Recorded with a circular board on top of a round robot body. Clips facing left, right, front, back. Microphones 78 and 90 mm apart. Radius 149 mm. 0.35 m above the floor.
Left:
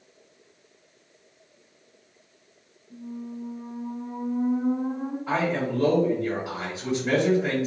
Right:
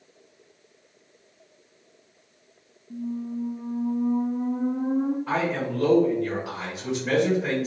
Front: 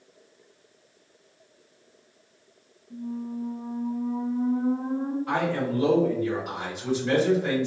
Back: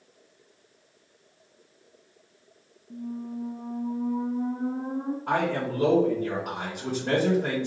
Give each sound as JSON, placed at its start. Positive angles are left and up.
{"t": 2.9, "sound": "a squeak", "azimuth_deg": -135, "distance_m": 1.1}
{"t": 5.3, "sound": "a man speaking", "azimuth_deg": 180, "distance_m": 1.8}